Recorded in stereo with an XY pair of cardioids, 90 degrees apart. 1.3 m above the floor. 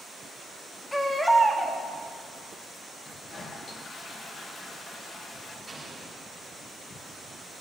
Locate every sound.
0.9 s a baby crying: 15° left, 1.8 m
3.0 s a toilet flushing: 55° left, 1.6 m
5.7 s an explosion: 15° right, 5 m